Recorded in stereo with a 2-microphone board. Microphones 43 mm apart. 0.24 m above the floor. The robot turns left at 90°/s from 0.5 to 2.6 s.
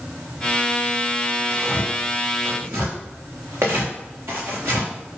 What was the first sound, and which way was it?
Tearing paper, centre (ahead or behind).